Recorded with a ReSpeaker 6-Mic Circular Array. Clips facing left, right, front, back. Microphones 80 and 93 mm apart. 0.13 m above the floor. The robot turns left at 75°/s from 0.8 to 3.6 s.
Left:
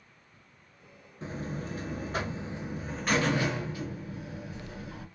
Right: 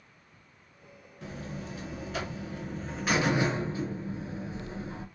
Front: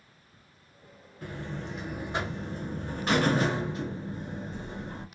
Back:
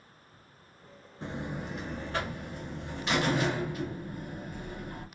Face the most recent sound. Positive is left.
turn(degrees=-45)